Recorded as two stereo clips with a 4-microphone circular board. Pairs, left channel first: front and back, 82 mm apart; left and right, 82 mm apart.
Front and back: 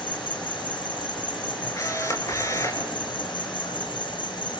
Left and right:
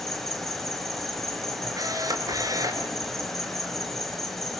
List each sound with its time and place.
0.0 s an insect: 5° left, 4 m
1.8 s a camera shutter: 50° right, 4.5 m